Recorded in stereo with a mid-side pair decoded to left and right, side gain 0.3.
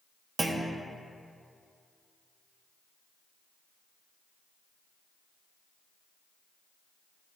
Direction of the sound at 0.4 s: 45° right.